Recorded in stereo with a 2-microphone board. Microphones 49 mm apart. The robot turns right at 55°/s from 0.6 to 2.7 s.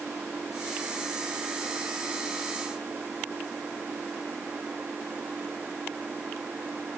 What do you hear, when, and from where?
0.0 s an engine running: 145° right; by 7.0 s 30° right